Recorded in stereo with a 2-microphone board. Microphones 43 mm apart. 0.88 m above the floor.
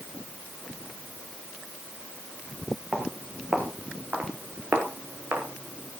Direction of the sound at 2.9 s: 30° right (ahead or behind).